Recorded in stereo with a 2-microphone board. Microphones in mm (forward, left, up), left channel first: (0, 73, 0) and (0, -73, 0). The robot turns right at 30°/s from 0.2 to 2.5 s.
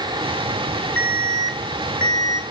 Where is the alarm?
170° left, 2.5 m; by 2.4 s 150° right, 2.5 m.